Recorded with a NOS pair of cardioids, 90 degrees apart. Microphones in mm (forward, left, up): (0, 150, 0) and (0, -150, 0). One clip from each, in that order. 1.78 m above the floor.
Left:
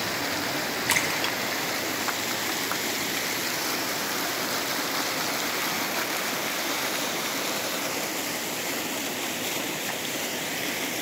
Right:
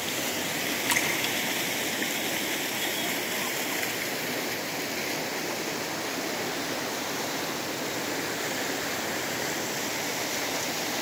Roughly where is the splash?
Ahead.